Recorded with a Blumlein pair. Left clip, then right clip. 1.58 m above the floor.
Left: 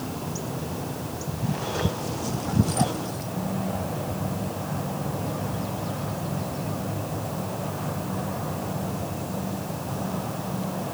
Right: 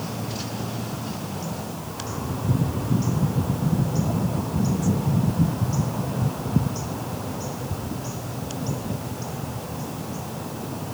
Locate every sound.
Only background noise.